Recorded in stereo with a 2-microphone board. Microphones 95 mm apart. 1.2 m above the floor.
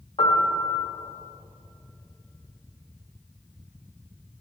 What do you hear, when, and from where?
0.2 s a piano: 70° left (ahead or behind), 1.9 m